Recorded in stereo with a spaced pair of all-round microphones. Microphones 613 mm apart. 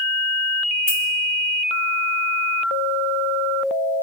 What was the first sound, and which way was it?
Keys jangling, 60° left (ahead or behind).